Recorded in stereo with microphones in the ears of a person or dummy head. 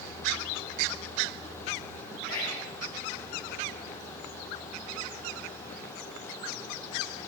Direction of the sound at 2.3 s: 20° left (ahead or behind).